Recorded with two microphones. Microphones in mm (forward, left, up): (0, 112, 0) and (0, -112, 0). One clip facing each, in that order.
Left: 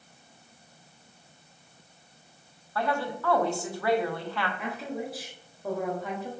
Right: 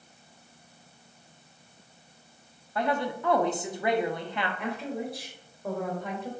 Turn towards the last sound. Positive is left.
turn(degrees=0)  # may be behind; listen again after turning